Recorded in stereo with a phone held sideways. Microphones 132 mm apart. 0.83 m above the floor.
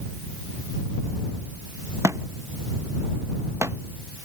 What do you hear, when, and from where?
2.0 s a thud: 20° right (ahead or behind)